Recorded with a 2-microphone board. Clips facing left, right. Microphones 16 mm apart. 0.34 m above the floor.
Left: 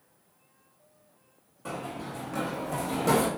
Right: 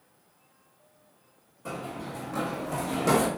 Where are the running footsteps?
25° left (ahead or behind), 1.4 m; by 3.3 s 20° right (ahead or behind), 1.0 m.